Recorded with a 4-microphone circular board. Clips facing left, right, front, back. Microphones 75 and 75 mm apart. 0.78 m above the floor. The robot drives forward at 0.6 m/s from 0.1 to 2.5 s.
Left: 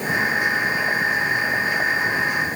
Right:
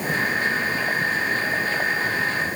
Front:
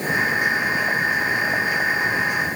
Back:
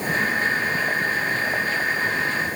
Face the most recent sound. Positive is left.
No sound to turn to.